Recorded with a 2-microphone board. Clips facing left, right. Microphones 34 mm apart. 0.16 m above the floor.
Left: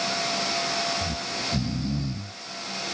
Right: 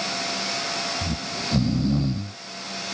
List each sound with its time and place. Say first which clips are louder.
1.0 s snoring: right 1 dB; 35° right (ahead or behind)